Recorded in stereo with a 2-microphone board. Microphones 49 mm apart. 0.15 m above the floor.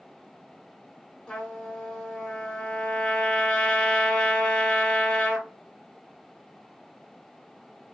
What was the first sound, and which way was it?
A trumpet, 15° left (ahead or behind).